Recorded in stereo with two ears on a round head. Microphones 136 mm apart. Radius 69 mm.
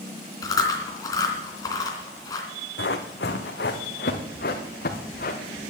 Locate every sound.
0.4 s chewing: 25° left (ahead or behind), 3 m
2.8 s running footsteps: 80° left, 2 m; by 5.6 s 55° left (ahead or behind), 3 m